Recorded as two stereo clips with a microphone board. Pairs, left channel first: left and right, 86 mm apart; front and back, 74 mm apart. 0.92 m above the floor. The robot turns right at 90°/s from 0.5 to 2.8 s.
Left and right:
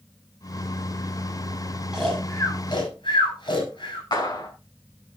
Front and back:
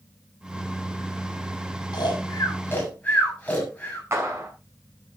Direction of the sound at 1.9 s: 10° right.